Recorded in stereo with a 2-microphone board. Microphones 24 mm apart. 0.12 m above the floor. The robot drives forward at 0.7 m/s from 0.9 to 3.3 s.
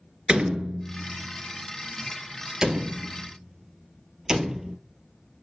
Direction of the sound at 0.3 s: 40° right (ahead or behind).